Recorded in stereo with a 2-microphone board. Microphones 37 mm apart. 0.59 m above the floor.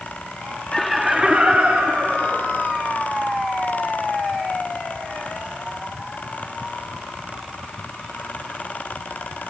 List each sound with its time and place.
0.7 s laughter: 15° left (ahead or behind), 1.1 m; by 2.6 s 60° right (ahead or behind), 2.5 m